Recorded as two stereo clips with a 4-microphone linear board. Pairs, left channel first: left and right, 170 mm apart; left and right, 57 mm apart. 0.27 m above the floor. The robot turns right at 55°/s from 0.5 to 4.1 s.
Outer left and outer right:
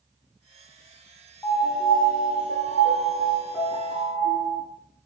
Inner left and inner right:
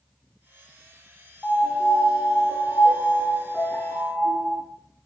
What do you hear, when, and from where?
1.4 s a piano: 15° left, 1.6 m; by 4.6 s 160° left, 1.6 m